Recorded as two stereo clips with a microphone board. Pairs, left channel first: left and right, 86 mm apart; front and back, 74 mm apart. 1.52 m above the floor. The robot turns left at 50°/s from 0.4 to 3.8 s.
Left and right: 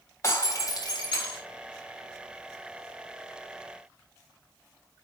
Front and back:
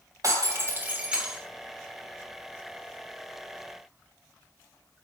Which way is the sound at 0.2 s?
145° left.